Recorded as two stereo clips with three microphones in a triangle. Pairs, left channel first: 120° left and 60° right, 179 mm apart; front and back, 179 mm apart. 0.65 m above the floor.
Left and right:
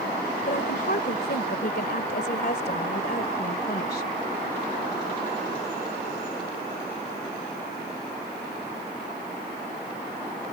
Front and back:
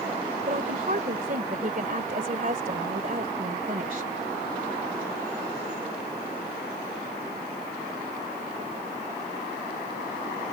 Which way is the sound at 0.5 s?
145° left.